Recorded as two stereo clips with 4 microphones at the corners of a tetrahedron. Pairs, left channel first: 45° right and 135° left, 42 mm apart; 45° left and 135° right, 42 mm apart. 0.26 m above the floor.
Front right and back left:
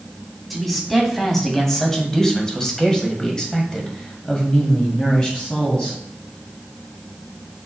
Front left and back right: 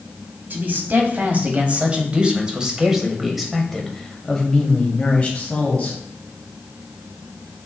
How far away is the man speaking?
About 2 m.